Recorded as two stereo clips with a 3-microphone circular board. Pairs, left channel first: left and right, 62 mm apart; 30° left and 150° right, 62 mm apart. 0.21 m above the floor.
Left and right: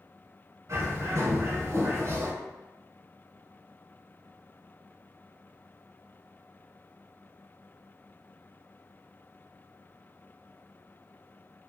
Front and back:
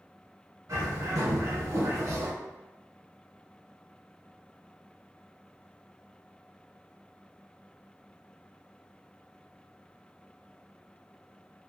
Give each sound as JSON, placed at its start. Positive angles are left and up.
{"t": 0.7, "sound": "a bird", "azimuth_deg": -120, "distance_m": 0.7}